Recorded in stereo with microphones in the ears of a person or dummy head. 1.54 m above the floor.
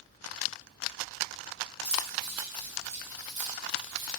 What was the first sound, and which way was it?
Keys jangling, 25° right (ahead or behind).